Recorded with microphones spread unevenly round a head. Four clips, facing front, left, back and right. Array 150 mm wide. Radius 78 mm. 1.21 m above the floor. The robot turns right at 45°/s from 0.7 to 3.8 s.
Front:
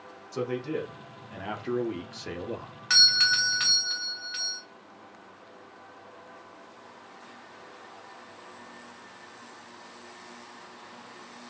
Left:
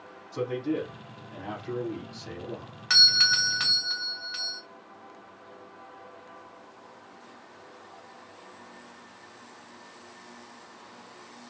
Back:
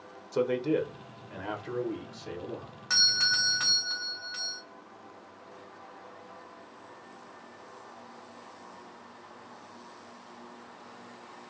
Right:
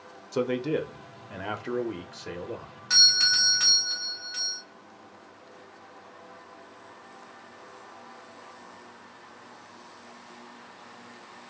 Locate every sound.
0.3 s a man speaking: 95° right, 1.2 m; by 2.7 s 5° right, 1.2 m
2.9 s a doorbell: 95° left, 0.7 m; by 4.6 s 135° left, 0.7 m